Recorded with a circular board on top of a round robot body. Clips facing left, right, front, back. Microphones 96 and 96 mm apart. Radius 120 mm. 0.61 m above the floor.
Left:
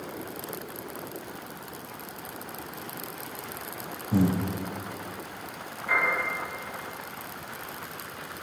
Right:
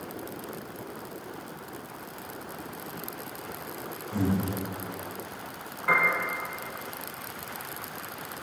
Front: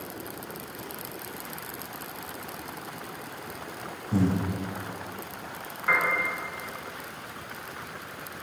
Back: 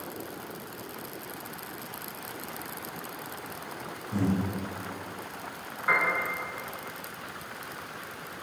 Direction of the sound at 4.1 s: 60° left.